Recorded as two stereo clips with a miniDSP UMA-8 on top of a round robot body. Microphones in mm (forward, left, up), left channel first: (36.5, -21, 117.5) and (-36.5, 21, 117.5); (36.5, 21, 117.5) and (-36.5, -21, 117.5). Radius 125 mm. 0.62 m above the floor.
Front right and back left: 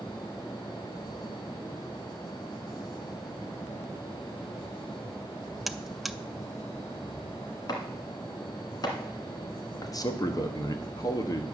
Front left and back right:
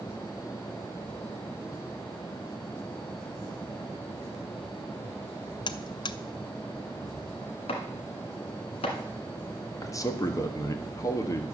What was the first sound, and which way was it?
A buzzer, 60° left.